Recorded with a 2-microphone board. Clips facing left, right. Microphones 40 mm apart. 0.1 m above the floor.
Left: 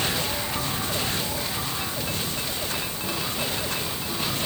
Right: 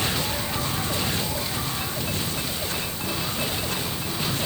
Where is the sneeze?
No sneeze in this recording.